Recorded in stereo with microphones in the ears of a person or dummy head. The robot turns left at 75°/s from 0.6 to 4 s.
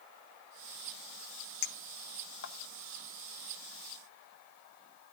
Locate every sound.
1.6 s a clink: 50° left (ahead or behind), 0.7 m; by 2.5 s 60° left (ahead or behind), 0.7 m